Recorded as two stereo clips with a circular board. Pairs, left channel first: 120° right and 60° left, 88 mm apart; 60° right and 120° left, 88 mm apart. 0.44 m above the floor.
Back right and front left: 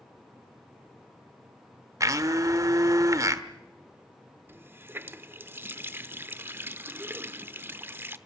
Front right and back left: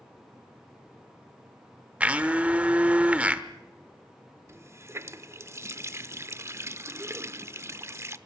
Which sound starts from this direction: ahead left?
A blender, at 2.0 s.